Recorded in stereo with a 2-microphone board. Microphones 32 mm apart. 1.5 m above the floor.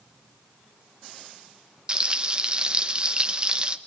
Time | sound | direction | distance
1.9 | frying | 35° right (ahead or behind) | 1.2 m